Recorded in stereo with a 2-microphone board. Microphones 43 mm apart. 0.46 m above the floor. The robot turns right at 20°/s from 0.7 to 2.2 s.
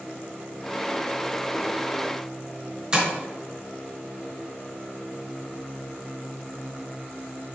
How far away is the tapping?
About 3.5 m.